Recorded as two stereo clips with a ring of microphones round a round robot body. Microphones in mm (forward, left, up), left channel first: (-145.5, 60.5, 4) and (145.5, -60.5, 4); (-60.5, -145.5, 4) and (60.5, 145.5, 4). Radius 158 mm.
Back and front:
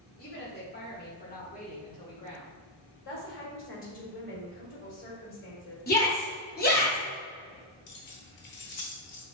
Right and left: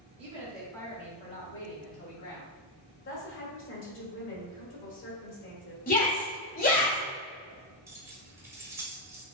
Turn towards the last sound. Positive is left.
turn(degrees=150)